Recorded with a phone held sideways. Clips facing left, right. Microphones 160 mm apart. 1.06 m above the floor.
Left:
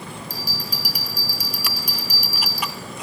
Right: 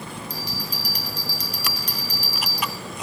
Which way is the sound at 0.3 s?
10° left (ahead or behind).